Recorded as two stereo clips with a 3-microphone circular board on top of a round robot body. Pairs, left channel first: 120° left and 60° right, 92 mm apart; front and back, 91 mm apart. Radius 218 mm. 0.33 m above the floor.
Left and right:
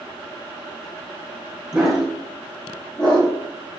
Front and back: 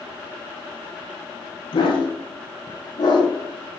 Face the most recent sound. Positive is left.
turn(degrees=40)